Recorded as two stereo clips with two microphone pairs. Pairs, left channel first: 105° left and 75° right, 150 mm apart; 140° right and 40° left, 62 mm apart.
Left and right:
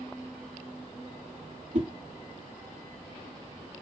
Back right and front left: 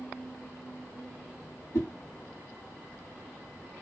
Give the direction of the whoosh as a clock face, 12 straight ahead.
3 o'clock.